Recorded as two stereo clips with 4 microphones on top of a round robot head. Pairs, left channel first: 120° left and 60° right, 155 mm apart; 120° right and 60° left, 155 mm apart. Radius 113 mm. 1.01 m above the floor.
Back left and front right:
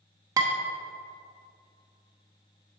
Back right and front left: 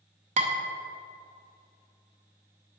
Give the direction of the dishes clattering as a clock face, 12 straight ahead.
12 o'clock.